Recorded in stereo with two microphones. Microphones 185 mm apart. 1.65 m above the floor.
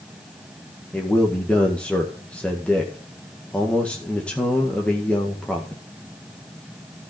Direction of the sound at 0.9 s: 5° left (ahead or behind).